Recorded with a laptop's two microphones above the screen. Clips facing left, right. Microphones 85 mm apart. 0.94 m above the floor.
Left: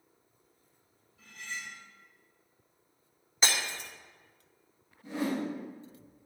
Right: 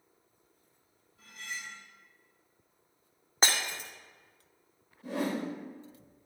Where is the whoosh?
75° right (ahead or behind), 4 m.